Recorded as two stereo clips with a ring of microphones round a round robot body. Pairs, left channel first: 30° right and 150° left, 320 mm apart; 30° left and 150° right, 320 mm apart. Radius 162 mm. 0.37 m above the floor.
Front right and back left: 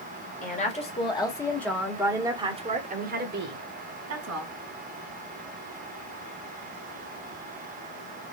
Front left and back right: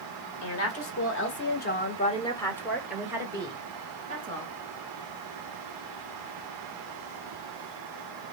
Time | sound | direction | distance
0.4 | a woman speaking | 25° left | 1.9 m